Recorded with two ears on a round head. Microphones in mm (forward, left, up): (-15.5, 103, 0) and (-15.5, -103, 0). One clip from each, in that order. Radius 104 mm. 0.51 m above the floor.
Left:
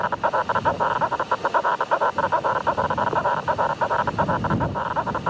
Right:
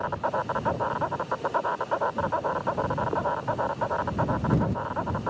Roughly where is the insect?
Left.